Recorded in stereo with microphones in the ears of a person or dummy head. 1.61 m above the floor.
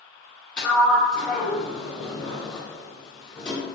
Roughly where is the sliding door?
Centre.